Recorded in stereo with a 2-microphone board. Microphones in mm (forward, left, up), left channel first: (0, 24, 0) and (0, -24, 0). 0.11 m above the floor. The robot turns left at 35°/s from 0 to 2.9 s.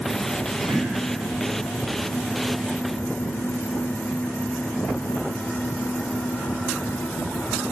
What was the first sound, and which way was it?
Throat clearing, 85° right.